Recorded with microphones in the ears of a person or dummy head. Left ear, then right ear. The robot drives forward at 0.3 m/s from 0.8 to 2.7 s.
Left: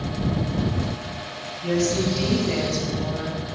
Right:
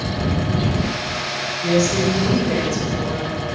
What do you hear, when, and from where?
1.6 s a woman speaking: 55° right (ahead or behind), 3 m; by 3.4 s 50° right (ahead or behind), 3.5 m